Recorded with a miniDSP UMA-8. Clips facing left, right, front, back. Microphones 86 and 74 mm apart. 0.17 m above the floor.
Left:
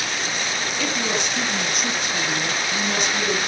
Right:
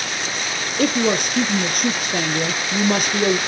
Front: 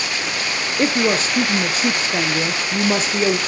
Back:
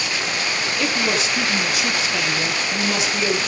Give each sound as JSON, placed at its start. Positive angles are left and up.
{"t": 0.8, "sound": "a woman speaking", "azimuth_deg": -50, "distance_m": 3.5}